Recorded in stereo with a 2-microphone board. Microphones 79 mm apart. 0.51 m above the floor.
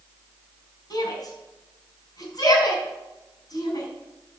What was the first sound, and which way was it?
A shout, 60° left (ahead or behind).